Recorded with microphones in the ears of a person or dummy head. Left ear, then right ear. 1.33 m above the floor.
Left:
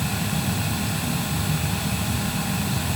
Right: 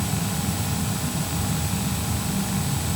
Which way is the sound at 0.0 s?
75° left (ahead or behind).